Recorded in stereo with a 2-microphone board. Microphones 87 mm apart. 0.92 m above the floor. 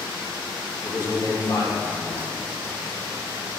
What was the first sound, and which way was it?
A man speaking, 50° left (ahead or behind).